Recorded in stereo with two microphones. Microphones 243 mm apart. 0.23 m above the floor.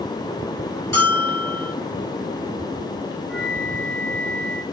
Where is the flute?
5° left (ahead or behind), 4.5 m.